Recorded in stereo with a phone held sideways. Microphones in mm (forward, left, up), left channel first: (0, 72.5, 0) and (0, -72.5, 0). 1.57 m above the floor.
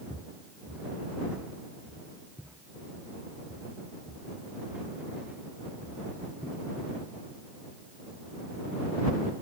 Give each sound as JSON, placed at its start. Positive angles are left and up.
{"t": 0.1, "sound": "footsteps", "side_deg": -10}